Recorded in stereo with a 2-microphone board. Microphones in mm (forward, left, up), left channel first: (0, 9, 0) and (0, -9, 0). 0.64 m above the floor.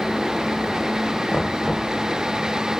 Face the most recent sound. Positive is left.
turn(degrees=65)  # may be behind; listen again after turning